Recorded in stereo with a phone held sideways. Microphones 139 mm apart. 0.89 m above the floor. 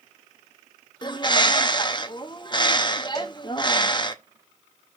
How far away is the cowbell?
About 2 m.